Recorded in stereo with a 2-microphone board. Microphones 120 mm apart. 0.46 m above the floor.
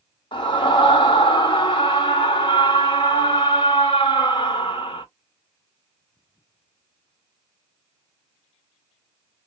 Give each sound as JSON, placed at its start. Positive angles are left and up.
{"t": 0.3, "sound": "a scream", "side_deg": 45, "distance_m": 1.7}